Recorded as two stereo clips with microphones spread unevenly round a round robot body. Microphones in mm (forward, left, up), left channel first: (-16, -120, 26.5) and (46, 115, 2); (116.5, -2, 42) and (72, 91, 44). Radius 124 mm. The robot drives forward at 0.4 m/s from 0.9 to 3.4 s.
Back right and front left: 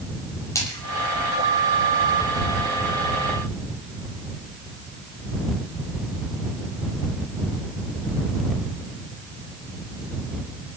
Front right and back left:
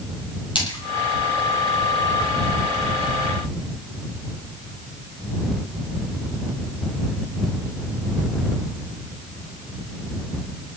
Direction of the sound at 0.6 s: 25° right.